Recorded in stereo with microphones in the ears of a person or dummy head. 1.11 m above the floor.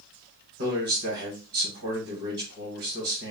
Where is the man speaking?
65° right (ahead or behind), 2.0 m.